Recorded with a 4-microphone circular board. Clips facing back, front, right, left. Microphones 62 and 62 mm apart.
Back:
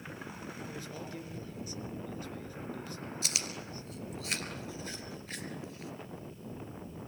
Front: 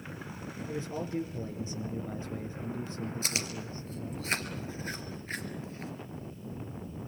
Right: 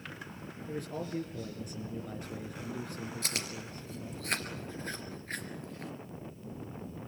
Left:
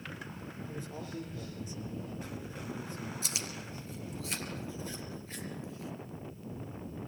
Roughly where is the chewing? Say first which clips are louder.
Front 3 dB, right 2 dB; ahead right.